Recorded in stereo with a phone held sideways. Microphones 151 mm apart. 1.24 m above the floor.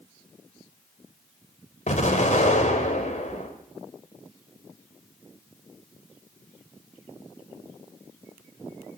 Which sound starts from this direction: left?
An explosion, at 1.9 s.